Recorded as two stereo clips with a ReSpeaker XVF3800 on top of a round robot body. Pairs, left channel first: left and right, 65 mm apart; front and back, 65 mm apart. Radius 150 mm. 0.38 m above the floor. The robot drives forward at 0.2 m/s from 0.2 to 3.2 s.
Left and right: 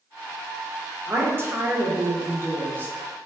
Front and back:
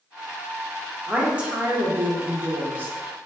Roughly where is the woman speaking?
Right.